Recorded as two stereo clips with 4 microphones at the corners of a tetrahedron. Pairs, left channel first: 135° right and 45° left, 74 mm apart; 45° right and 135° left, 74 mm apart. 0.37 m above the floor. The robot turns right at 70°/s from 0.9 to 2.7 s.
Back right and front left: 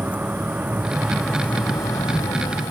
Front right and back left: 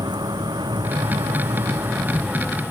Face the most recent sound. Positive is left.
turn(degrees=-120)